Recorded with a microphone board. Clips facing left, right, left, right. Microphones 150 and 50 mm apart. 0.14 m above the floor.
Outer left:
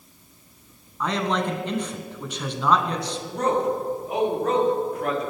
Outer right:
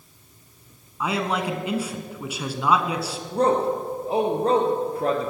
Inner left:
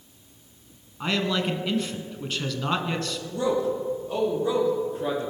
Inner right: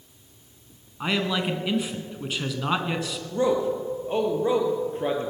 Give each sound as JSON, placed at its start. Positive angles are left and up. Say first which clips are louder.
{"t": 1.0, "sound": "a man speaking", "louder": "outer left 1 dB, even", "side_deg": -10, "distance_m": 1.4}
{"t": 3.3, "sound": "a man speaking", "louder": "outer right 2 dB, inner right 2 dB", "side_deg": -30, "distance_m": 3.0}